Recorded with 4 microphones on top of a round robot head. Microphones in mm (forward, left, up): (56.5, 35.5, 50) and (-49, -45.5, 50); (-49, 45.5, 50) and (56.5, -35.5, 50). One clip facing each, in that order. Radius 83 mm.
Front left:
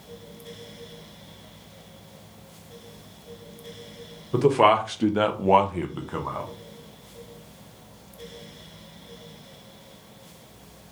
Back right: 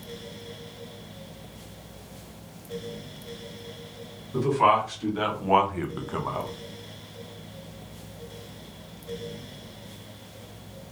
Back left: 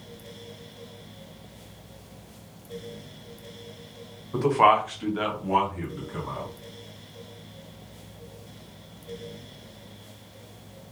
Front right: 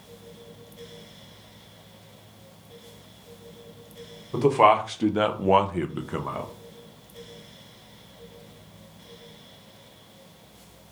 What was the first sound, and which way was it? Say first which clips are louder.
A man speaking: front left 4 dB, front right 2 dB; 30° left.